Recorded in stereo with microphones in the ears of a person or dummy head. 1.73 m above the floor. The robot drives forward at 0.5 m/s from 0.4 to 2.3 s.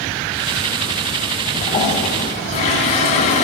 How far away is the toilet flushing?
About 1.8 m.